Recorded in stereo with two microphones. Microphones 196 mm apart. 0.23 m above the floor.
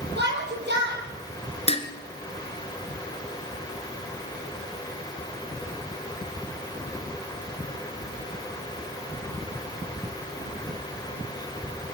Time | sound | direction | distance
0.2 | a shout | 60° right (ahead or behind) | 7 m
1.7 | dishes clattering | 30° left (ahead or behind) | 2 m